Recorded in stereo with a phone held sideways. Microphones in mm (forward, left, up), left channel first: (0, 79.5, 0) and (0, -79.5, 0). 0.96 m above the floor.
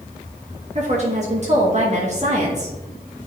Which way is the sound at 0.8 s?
45° right (ahead or behind).